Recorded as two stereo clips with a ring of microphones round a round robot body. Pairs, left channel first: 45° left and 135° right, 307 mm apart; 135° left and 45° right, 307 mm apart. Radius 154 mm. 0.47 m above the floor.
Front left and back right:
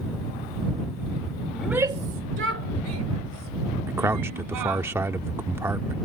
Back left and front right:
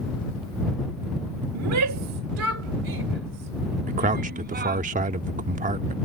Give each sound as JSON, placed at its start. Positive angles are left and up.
{"t": 1.6, "sound": "a shout", "azimuth_deg": -35}
{"t": 3.9, "sound": "a man speaking", "azimuth_deg": -65}